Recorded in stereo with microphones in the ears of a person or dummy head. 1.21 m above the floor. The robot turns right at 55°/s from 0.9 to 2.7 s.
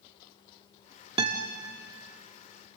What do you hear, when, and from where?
1.2 s a guitar: 25° right (ahead or behind), 1.1 m; by 1.5 s 40° right (ahead or behind), 1.1 m